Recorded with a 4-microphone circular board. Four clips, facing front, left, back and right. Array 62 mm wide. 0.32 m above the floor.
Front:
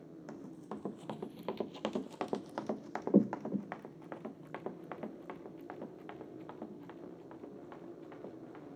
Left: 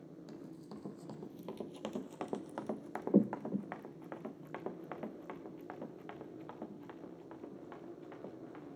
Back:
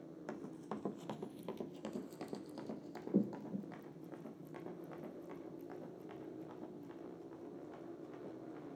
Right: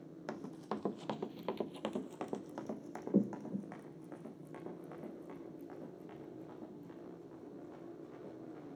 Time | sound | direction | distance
0.3 | running footsteps | 100° right | 0.8 m